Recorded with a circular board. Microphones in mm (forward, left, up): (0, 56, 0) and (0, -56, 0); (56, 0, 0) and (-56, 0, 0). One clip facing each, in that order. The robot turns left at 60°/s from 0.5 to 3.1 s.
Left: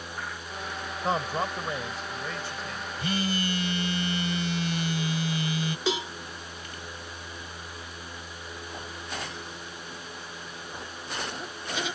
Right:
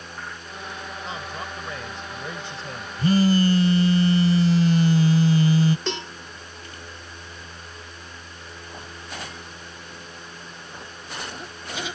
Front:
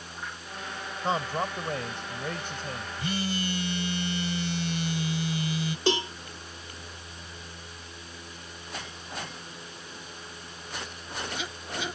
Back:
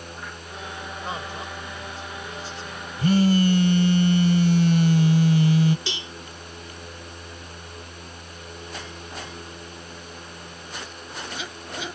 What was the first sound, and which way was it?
A man speaking, 60° left.